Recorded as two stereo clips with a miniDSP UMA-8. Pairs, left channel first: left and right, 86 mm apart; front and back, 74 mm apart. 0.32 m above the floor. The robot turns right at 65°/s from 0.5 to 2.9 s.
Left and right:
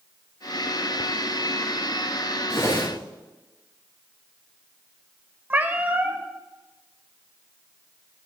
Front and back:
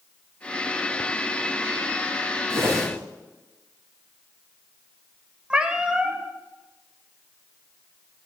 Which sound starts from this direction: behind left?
A whoosh, at 2.5 s.